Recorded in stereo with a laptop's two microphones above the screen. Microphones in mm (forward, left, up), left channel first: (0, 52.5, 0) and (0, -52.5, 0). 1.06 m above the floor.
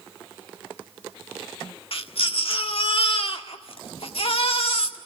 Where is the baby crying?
65° left (ahead or behind), 1.5 m.